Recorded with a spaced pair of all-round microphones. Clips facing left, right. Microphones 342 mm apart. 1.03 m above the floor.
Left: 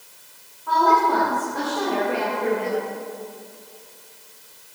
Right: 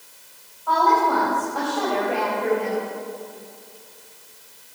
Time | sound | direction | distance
0.7 | a woman speaking | 30° left (ahead or behind) | 5 m